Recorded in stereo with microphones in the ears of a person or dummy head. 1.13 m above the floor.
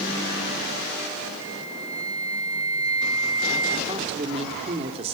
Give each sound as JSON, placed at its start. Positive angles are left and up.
{"t": 1.4, "sound": "a flute", "side_deg": -20, "distance_m": 2.5}
{"t": 3.9, "sound": "a woman speaking", "side_deg": -35, "distance_m": 3.0}